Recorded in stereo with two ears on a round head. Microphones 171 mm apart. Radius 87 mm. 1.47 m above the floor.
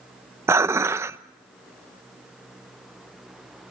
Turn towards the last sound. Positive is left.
turn(degrees=-15)  # may be behind; listen again after turning